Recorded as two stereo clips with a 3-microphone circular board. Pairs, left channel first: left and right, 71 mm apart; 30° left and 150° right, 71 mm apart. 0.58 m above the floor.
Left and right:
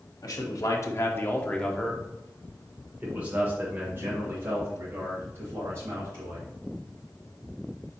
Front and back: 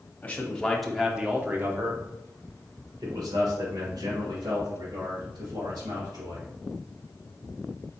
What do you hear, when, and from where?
0.2 s a man speaking: 95° left, 1.0 m; by 6.5 s 140° right, 3 m